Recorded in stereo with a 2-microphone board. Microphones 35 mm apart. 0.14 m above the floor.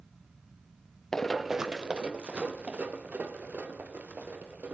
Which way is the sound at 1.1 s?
15° left (ahead or behind).